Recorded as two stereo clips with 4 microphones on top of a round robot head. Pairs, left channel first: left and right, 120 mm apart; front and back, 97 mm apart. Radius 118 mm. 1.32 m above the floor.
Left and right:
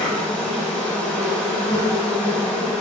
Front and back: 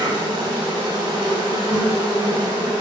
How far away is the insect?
About 0.9 m.